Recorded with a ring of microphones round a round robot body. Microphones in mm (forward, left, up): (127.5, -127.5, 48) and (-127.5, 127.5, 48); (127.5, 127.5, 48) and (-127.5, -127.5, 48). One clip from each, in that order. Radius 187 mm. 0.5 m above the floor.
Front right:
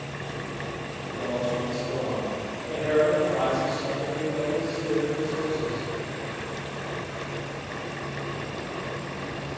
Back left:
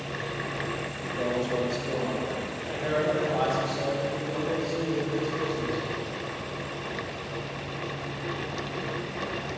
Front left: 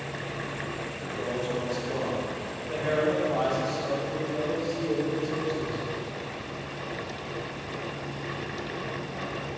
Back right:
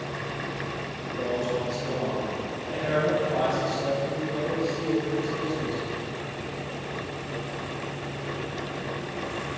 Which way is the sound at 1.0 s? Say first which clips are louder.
Front right 1 dB, back right 3 dB; 150° left.